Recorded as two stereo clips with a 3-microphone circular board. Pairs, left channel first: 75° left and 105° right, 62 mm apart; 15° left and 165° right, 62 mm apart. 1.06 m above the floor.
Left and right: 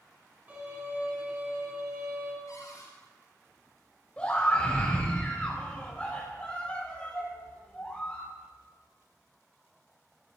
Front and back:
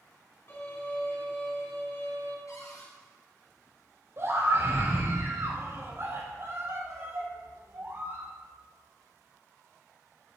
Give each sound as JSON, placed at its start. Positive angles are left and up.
{"t": 0.5, "sound": "a violin", "azimuth_deg": -40, "distance_m": 6.0}
{"t": 2.5, "sound": "a cupboard door", "azimuth_deg": 50, "distance_m": 4.5}
{"t": 4.2, "sound": "a scream", "azimuth_deg": 150, "distance_m": 5.5}